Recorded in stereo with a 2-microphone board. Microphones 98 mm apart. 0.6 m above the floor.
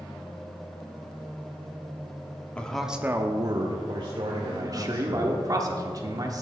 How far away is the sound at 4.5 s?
About 1.2 m.